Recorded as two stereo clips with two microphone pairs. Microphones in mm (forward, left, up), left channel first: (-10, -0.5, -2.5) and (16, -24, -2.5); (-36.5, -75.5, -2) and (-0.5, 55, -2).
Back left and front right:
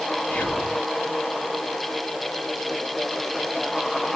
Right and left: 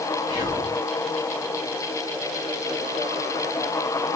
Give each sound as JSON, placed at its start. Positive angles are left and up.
{"t": 0.3, "sound": "whispering", "azimuth_deg": 120, "distance_m": 1.5}